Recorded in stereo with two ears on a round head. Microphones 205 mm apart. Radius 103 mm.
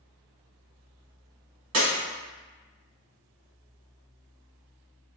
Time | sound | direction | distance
1.7 | breaking glass | 65° right (ahead or behind) | 1.4 m